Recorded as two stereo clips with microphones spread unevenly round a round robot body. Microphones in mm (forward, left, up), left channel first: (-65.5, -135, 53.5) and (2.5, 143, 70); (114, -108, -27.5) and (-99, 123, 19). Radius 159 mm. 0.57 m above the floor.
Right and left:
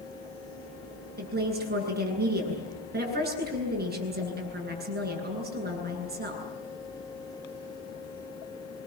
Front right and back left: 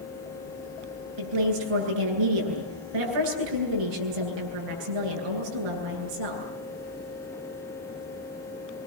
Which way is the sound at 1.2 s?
135° left.